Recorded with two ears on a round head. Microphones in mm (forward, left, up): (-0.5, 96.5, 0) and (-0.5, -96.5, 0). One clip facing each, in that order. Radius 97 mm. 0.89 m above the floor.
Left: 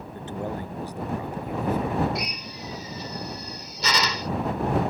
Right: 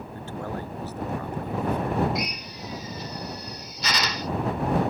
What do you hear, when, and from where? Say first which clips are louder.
0.1 s a man speaking: left 2 dB; 20° left (ahead or behind); by 2.0 s 5° left (ahead or behind)
2.1 s a drill: right 1 dB; 80° left